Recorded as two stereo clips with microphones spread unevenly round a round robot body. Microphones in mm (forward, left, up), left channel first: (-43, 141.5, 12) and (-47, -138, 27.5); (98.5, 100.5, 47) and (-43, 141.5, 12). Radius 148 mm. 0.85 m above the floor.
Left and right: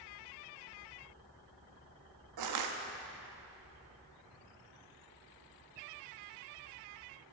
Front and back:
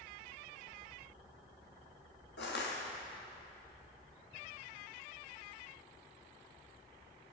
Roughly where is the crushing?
Ahead right.